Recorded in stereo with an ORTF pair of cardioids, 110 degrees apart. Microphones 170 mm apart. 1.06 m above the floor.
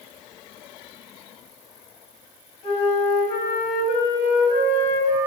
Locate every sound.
2.6 s a flute: 45° left, 1.1 m